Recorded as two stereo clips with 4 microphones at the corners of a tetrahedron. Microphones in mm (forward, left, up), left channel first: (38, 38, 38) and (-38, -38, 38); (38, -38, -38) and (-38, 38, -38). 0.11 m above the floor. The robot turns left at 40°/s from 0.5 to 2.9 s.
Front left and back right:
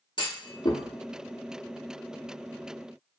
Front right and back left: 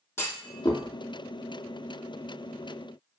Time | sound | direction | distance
0.2 | a clunk | 15° left | 0.8 m